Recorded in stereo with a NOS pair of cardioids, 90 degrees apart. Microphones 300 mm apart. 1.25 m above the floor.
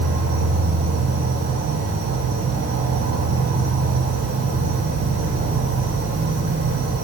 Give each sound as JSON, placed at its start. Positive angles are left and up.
{"t": 0.0, "sound": "an insect", "azimuth_deg": -70, "distance_m": 3.0}